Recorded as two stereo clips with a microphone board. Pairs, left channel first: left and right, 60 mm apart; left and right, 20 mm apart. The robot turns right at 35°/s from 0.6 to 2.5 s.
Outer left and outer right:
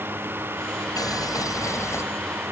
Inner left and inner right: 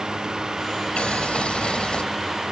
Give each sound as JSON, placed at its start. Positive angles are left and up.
{"t": 1.0, "sound": "boiling", "azimuth_deg": 95}